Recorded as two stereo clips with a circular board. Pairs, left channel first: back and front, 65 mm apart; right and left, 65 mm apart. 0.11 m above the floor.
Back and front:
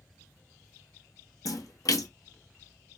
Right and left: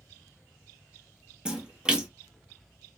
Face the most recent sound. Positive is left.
turn(degrees=165)